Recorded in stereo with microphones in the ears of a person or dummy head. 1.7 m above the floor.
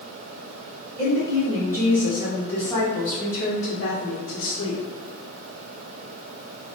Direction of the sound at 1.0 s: 20° right (ahead or behind).